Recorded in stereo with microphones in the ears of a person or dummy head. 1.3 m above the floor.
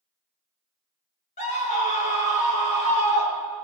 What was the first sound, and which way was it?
A scream, 40° left (ahead or behind).